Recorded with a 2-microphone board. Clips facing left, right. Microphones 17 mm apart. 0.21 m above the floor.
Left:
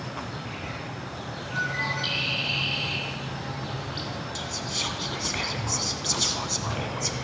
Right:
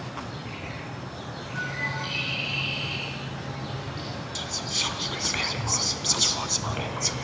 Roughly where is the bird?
Left.